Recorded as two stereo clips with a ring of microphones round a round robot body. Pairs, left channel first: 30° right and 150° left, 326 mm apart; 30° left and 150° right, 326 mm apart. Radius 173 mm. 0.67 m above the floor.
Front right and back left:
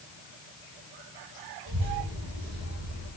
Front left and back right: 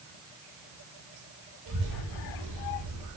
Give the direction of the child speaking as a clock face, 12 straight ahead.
5 o'clock.